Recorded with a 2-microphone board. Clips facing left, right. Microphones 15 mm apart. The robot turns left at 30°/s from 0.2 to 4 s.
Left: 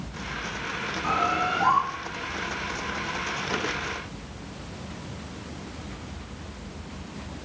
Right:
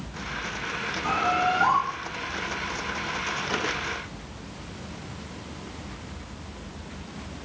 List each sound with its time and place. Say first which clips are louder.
1.0 s a bird: right 1 dB; 5° right (ahead or behind), 2 m; by 1.8 s 25° right (ahead or behind), 2 m